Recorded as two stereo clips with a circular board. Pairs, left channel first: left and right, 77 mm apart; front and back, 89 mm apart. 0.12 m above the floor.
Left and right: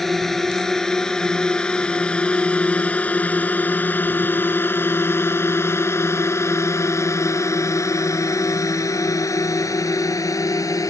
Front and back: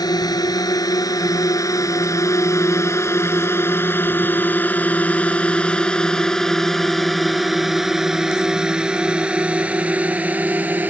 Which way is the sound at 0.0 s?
5° left.